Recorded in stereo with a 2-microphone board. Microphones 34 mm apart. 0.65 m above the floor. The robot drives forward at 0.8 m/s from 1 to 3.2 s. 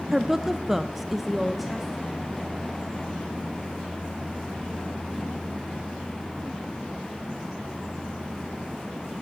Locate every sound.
0.1 s a woman speaking: 10° right (ahead or behind), 0.5 m; by 2.3 s 5° right (ahead or behind), 1.3 m